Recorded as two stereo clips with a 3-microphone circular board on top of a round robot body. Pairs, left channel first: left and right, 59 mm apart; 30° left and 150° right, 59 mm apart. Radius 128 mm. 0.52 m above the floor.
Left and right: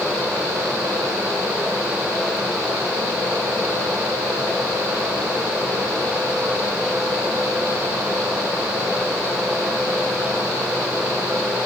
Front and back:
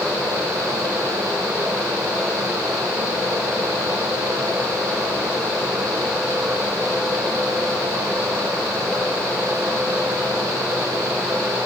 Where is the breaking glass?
No breaking glass in this recording.